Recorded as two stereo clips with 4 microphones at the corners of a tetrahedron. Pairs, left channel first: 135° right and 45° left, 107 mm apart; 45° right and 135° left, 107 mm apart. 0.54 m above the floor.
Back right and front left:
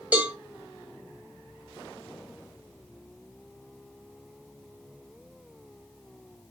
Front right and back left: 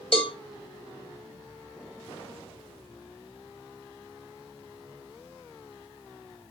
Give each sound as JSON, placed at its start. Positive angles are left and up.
{"t": 0.1, "sound": "a cowbell", "azimuth_deg": -30, "distance_m": 2.0}